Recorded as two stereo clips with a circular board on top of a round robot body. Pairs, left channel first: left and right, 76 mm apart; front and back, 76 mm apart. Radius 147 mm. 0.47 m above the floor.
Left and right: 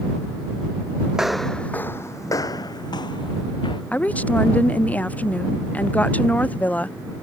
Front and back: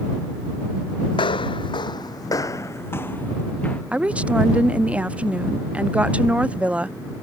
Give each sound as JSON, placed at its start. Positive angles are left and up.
{"t": 1.1, "sound": "footsteps", "azimuth_deg": -10}
{"t": 3.9, "sound": "a woman speaking", "azimuth_deg": 130}